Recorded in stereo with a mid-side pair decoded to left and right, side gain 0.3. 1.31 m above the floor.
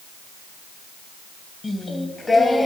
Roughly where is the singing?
Ahead left.